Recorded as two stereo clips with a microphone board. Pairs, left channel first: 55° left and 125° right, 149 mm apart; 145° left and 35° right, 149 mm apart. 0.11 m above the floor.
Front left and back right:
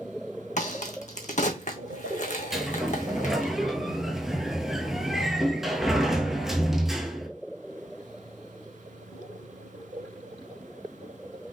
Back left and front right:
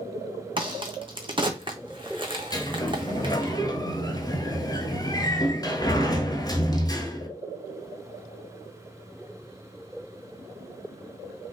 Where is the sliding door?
150° left, 0.9 m.